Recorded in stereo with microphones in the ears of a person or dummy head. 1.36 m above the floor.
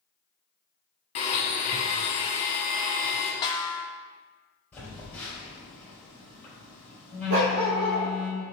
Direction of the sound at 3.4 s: 25° left (ahead or behind).